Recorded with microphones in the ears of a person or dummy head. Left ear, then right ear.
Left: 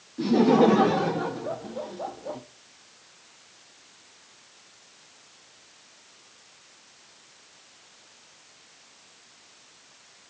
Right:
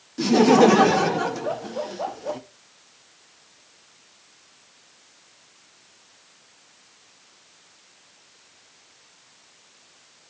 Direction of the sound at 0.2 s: 55° right (ahead or behind).